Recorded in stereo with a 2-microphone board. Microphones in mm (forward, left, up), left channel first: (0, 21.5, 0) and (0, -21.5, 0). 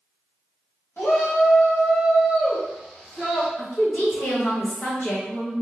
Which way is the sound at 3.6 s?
60° left (ahead or behind).